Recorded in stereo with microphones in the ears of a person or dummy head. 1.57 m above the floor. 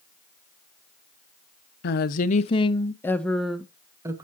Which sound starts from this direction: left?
A woman speaking, at 1.8 s.